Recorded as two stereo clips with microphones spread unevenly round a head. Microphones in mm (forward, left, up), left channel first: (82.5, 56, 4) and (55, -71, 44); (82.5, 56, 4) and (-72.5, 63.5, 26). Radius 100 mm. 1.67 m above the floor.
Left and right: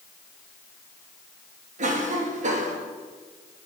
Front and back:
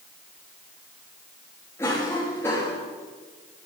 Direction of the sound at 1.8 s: 80° right.